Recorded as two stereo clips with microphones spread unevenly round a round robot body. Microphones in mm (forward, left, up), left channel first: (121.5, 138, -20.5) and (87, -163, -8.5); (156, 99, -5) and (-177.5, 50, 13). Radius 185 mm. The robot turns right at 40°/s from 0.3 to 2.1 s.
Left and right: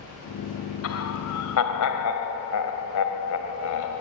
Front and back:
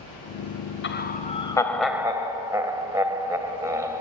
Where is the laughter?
60° left, 2.5 m; by 4.0 s 110° left, 2.5 m.